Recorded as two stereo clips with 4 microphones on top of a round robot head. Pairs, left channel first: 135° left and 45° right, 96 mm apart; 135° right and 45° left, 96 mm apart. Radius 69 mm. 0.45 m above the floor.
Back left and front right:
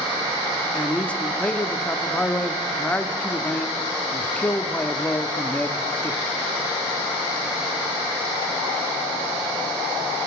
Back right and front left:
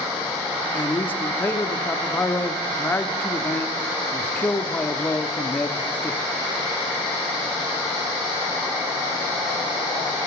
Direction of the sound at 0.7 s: 165° right.